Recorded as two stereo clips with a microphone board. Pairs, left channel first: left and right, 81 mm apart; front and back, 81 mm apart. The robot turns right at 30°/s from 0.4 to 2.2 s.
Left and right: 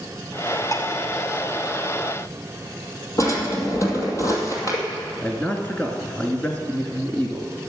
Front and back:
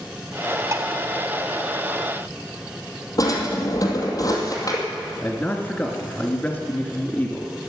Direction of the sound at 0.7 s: 130° left.